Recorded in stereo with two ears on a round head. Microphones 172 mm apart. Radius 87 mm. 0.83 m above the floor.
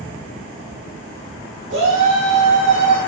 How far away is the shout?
About 3.5 m.